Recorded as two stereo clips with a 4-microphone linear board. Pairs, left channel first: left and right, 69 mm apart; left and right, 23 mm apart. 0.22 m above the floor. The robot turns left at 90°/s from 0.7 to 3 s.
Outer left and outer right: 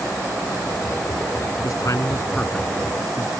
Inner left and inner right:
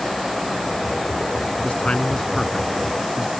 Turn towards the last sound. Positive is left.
turn(degrees=-25)  # may be behind; listen again after turning